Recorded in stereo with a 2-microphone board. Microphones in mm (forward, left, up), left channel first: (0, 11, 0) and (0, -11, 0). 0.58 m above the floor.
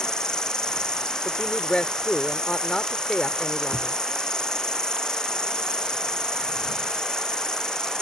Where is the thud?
75° right (ahead or behind).